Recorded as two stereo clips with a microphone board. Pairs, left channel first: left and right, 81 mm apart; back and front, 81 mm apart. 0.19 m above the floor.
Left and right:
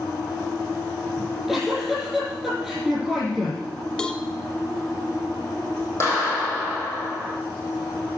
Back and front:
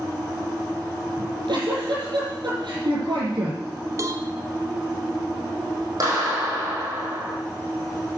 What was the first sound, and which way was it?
A giggle, straight ahead.